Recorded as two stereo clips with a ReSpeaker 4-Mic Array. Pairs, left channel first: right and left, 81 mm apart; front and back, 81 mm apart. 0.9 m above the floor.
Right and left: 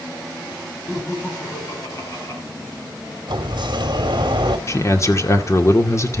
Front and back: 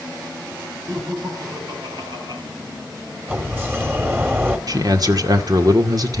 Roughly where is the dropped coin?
I don't hear a dropped coin.